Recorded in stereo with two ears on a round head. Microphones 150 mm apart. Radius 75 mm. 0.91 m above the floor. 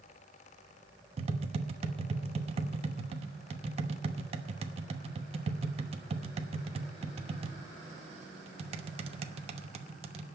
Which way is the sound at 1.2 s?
35° right (ahead or behind).